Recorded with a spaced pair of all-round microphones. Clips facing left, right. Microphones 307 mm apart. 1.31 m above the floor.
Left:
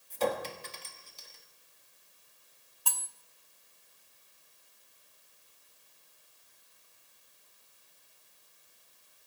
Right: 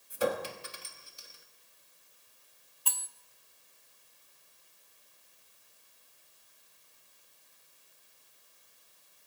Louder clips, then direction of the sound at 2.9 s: Left 3 dB; 55° left (ahead or behind).